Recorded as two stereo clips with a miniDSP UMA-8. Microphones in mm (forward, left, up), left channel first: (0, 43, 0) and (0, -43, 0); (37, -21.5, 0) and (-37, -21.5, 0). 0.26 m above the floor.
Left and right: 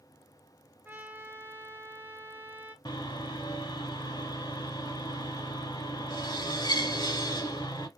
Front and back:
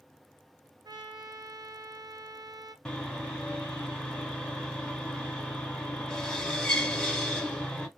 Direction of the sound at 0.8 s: 155° right.